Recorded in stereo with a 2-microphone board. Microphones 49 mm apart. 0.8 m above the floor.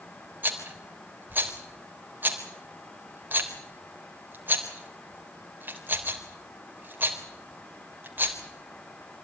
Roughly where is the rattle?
Right.